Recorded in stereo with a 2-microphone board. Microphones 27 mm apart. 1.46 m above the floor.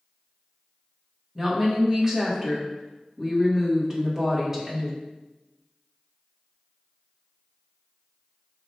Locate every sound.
1.4 s a woman speaking: 15° right (ahead or behind), 1.4 m